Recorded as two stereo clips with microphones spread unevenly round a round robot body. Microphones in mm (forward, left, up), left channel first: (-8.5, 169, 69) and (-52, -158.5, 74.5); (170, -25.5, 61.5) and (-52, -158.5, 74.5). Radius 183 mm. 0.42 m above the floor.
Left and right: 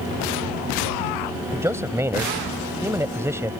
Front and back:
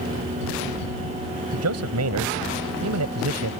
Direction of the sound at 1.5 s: Straight behind.